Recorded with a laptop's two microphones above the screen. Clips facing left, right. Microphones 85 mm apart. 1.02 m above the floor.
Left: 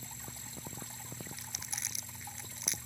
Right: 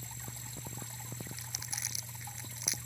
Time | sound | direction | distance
1.4 | crumpling | 5° right (ahead or behind) | ?